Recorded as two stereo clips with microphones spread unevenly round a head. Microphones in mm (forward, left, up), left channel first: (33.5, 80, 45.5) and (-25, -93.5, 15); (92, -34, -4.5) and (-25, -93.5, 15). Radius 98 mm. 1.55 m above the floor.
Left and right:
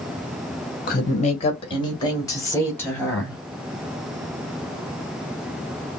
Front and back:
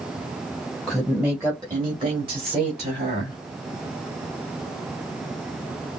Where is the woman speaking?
115° left, 1.2 m; by 3.4 s 155° left, 3 m.